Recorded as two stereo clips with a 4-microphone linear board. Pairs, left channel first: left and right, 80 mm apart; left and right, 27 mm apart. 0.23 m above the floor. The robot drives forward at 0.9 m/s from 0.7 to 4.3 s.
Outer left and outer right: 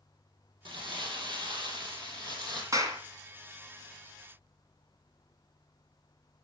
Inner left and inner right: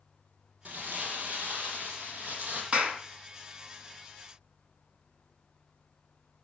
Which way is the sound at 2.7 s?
45° right (ahead or behind).